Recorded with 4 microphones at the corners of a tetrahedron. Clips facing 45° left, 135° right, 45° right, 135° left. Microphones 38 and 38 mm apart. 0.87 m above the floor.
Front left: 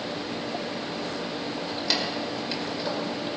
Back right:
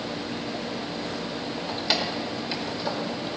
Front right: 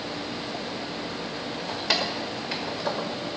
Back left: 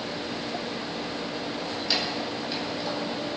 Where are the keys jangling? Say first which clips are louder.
Back right 2 dB, front right 3 dB; 60° right, 1.9 m; by 3.1 s 40° right, 2.0 m.